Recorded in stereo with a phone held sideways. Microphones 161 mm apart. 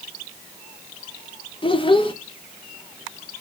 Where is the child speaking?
30° left (ahead or behind), 0.8 m.